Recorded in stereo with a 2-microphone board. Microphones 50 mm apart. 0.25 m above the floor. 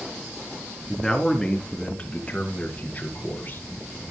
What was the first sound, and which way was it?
A man speaking, 5° left (ahead or behind).